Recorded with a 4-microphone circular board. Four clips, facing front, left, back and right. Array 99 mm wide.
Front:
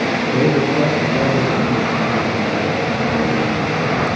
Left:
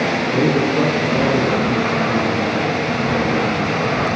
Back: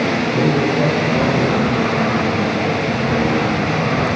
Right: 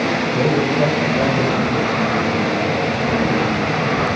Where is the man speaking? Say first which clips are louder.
Left 2 dB, front 2 dB; 50° left, 5.5 m.